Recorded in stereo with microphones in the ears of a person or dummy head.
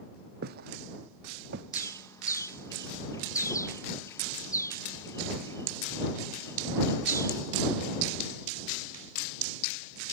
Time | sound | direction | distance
0.4 | footsteps | 60° right (ahead or behind) | ?
1.7 | a bird | 15° left (ahead or behind) | ?